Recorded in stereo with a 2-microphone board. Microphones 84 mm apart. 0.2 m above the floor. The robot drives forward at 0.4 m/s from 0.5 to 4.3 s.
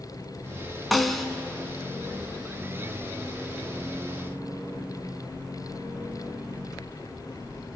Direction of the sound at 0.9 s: Centre (ahead or behind).